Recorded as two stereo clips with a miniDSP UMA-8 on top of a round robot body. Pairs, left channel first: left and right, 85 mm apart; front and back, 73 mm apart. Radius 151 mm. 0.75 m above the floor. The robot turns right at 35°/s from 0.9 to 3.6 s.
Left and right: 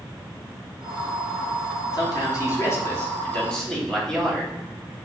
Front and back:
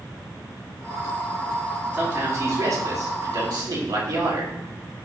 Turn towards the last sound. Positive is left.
turn(degrees=170)